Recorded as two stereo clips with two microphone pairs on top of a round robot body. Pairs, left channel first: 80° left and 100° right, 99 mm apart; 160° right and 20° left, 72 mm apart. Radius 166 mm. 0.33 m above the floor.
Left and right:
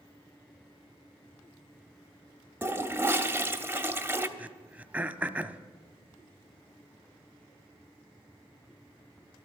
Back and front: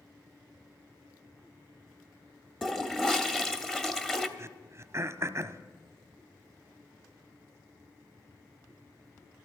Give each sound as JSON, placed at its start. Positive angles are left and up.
{"t": 2.6, "sound": "a toilet flushing", "azimuth_deg": -85, "distance_m": 1.4}
{"t": 4.4, "sound": "throat clearing", "azimuth_deg": -25, "distance_m": 0.8}